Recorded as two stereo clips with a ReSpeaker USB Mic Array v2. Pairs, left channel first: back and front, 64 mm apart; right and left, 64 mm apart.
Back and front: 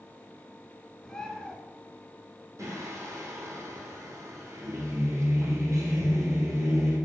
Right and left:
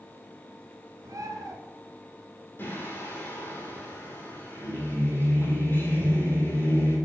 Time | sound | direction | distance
1.0 | a bird | 100° left | 1.2 m
2.6 | singing | 40° right | 3 m